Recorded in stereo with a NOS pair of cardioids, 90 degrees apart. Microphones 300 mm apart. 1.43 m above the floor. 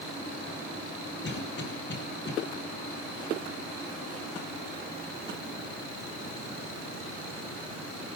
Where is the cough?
35° left, 8.5 m.